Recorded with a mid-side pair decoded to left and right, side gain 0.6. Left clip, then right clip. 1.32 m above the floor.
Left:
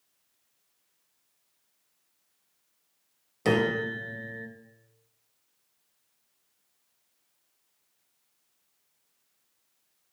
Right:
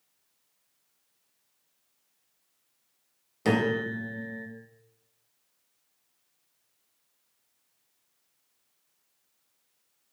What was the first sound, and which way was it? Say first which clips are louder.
A piano: left 1 dB; straight ahead.